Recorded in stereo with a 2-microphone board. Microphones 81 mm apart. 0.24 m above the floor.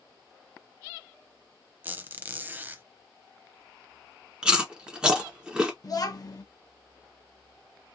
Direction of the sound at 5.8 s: 50° left (ahead or behind).